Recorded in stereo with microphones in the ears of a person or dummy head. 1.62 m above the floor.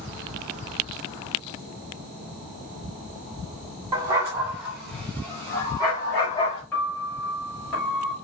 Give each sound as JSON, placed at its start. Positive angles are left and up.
{"t": 3.9, "sound": "a dog barking", "side_deg": -20, "distance_m": 1.4}
{"t": 6.7, "sound": "a piano", "side_deg": 10, "distance_m": 3.0}